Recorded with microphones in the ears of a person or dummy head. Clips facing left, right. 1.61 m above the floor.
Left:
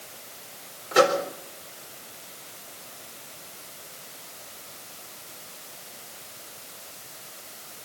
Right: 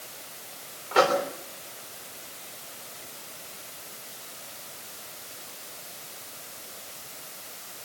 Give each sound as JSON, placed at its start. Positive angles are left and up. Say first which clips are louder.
{"t": 0.9, "sound": "a microwave", "louder": "left 2 dB", "side_deg": 15, "distance_m": 4.0}